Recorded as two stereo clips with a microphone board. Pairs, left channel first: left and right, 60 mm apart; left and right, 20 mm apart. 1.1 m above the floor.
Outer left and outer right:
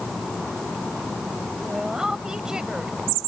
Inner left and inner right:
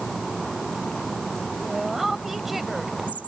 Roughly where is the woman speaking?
Centre.